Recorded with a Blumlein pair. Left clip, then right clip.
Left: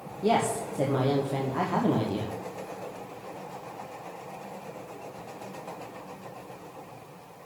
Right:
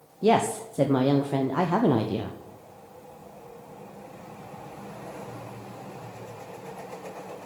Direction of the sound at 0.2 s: 20° right.